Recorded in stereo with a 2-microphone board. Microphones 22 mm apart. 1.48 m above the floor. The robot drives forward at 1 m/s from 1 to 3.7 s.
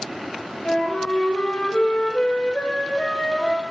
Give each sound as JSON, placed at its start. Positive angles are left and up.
{"t": 0.7, "sound": "a flute", "side_deg": 50, "distance_m": 1.6}